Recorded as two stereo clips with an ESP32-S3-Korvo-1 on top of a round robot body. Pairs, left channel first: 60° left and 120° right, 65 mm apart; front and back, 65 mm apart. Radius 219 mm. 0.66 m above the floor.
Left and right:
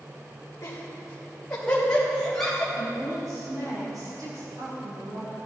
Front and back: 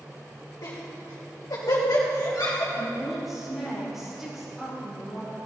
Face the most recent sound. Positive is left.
turn(degrees=-95)